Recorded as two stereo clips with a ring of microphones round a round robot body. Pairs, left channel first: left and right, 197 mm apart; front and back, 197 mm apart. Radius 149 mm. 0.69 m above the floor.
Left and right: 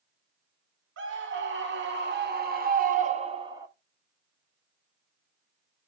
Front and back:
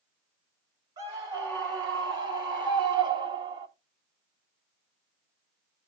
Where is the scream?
105° right, 2 m; by 3.7 s 150° right, 0.9 m.